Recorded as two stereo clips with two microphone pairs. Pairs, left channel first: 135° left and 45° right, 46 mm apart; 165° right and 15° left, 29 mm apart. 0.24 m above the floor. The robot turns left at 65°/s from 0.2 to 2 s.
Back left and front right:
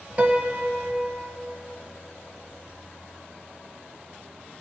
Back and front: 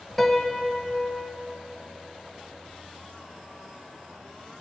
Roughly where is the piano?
Right.